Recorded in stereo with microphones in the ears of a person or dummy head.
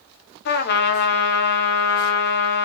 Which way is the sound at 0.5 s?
60° left (ahead or behind).